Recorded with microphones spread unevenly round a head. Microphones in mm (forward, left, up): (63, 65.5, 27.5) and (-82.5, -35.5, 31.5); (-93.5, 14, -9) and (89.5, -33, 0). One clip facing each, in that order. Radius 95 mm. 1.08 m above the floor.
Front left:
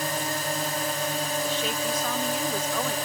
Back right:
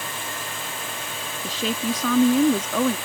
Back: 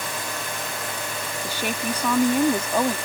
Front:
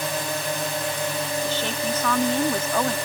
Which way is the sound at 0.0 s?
25° left.